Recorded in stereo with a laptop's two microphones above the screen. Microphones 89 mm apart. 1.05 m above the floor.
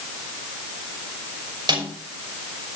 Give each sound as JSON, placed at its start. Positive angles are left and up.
{"t": 1.7, "sound": "a snare drum", "side_deg": -55, "distance_m": 5.5}